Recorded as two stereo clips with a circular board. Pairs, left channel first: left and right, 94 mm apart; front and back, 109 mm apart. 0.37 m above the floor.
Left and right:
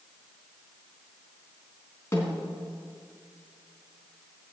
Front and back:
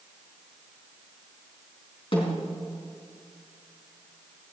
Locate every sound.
2.1 s a snare drum: 30° left, 4 m